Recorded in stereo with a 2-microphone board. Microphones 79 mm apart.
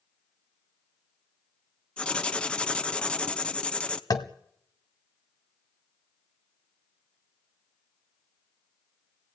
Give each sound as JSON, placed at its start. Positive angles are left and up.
{"t": 2.0, "sound": "writing", "side_deg": 15, "distance_m": 0.9}
{"t": 4.1, "sound": "tapping", "side_deg": 50, "distance_m": 1.4}